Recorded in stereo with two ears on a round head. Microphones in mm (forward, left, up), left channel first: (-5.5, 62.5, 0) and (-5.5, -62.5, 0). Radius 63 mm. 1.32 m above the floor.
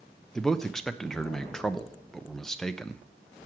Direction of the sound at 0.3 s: 5° left (ahead or behind).